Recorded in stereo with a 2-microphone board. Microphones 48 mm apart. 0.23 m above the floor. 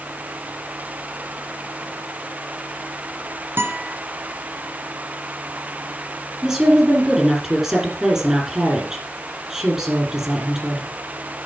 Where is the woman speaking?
10° right (ahead or behind), 6 m.